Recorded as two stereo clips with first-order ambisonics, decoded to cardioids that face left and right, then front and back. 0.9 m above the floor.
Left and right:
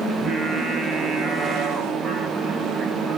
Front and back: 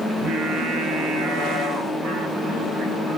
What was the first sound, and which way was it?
Singing, 155° right.